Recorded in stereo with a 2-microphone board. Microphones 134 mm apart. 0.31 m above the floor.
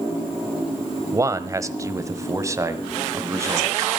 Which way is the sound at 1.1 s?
25° right (ahead or behind).